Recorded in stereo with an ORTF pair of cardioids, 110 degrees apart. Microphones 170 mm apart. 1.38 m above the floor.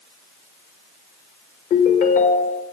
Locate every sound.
1.7 s a ringtone: 55° left, 1.4 m